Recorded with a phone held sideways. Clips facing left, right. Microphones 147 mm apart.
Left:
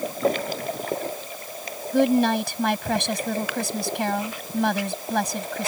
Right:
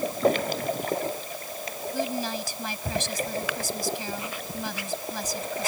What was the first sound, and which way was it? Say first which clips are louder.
A woman speaking: left 12 dB; 65° left (ahead or behind).